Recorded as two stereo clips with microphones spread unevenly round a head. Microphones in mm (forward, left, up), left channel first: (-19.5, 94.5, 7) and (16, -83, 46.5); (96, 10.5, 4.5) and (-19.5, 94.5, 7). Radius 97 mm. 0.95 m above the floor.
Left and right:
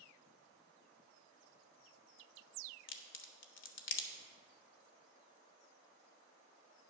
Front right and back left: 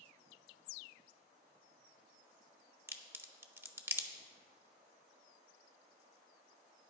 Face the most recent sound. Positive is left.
turn(degrees=70)